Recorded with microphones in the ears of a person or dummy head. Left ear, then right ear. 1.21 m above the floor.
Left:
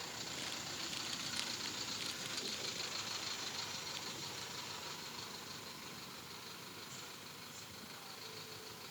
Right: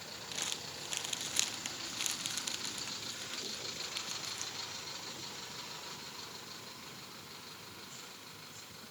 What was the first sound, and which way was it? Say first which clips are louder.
Crumpling: right 7 dB; 30° right (ahead or behind).